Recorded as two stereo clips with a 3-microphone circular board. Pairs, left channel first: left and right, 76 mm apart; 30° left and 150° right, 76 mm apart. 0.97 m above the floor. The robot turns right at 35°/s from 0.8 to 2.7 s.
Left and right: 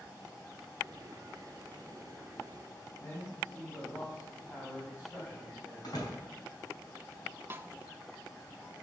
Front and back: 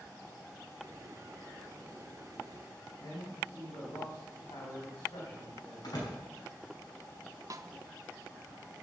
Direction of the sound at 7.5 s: 140° right.